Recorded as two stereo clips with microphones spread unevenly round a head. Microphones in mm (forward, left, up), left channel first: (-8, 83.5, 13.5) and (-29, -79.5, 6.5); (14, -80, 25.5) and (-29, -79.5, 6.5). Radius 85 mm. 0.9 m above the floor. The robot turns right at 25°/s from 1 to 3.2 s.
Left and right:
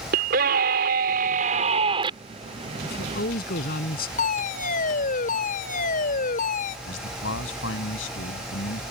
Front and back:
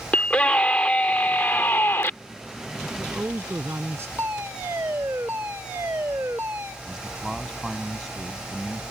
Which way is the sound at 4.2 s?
120° left.